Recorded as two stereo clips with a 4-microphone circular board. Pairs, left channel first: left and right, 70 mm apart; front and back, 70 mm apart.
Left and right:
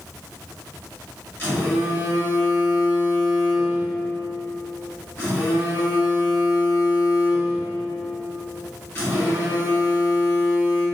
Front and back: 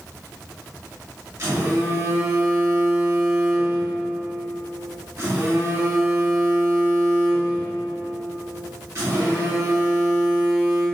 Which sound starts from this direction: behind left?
A phone buzzing, at 1.4 s.